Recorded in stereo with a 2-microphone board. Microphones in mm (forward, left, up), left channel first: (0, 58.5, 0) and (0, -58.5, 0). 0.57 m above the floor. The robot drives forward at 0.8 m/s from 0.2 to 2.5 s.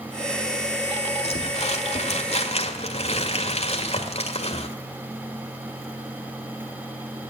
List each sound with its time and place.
1.2 s crumpling: 60° left (ahead or behind), 1.7 m; by 4.7 s 65° left (ahead or behind), 1.7 m